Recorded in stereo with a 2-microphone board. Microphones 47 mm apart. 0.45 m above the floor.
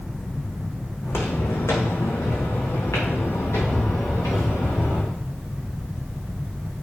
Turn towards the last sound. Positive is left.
turn(degrees=65)  # may be behind; listen again after turning